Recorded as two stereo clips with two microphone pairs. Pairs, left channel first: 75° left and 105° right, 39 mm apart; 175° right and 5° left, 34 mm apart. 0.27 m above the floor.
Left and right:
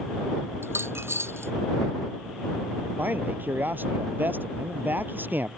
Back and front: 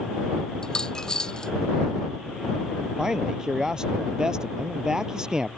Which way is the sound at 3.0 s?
65° right.